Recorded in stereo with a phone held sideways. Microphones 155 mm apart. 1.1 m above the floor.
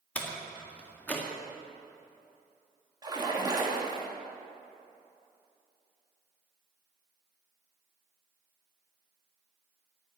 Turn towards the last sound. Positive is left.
turn(degrees=-25)  # may be behind; listen again after turning